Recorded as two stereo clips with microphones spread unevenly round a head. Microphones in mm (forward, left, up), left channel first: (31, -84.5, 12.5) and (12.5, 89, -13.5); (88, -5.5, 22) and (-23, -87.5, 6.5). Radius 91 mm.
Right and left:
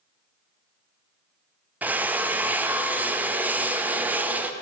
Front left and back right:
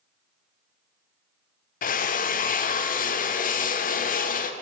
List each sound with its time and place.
1.8 s a drill: 15° left, 0.6 m